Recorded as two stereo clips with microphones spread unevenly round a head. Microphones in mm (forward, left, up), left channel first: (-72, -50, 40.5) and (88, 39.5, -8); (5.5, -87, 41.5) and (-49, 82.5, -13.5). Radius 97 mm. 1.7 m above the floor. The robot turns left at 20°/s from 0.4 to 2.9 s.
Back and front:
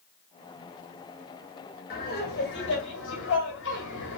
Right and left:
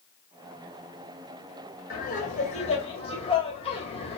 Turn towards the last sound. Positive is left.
turn(degrees=-130)